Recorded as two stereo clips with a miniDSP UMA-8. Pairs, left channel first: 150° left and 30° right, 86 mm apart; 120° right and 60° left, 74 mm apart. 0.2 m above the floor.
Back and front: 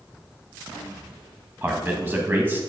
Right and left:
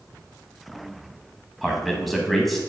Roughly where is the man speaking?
Ahead right.